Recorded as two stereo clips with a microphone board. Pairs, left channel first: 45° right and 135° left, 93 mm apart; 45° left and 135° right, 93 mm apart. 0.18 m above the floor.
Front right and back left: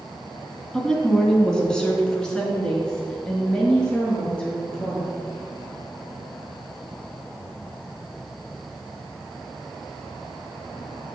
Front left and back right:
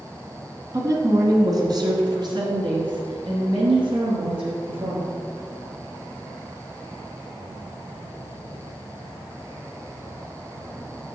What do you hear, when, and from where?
0.7 s a woman speaking: 125° right, 1.5 m